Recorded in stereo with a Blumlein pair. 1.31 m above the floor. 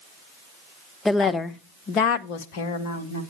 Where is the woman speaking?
5° left, 1.0 m; by 3.2 s 60° left, 1.6 m.